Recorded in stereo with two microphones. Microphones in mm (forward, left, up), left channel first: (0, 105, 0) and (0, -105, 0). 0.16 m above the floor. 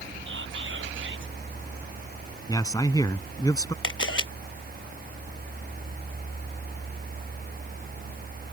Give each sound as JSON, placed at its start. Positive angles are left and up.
{"t": 0.3, "sound": "whispering", "side_deg": -70}
{"t": 2.5, "sound": "a man speaking", "side_deg": 15}
{"t": 3.8, "sound": "a camera shutter", "side_deg": 80}